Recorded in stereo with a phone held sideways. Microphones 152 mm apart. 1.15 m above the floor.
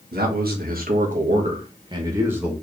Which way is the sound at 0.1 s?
80° right.